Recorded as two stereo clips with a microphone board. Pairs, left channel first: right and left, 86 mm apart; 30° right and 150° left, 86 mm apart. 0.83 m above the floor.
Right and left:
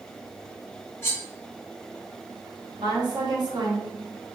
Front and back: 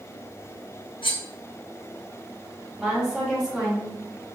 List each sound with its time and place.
1.0 s cutlery clinking: 25° right, 1.0 m
2.8 s a woman speaking: 70° left, 1.4 m